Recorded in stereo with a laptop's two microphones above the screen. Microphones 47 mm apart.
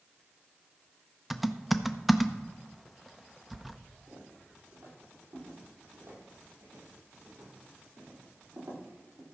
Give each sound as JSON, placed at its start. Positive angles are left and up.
{"t": 1.3, "sound": "typing on a keyboard", "side_deg": 0, "distance_m": 0.6}
{"t": 4.1, "sound": "footsteps", "side_deg": -65, "distance_m": 6.5}